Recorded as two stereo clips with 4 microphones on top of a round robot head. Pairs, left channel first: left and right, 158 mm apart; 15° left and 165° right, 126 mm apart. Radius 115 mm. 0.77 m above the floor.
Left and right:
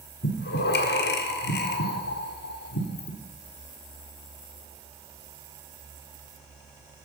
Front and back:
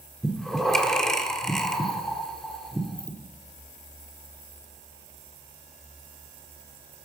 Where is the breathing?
100° left, 1.7 m.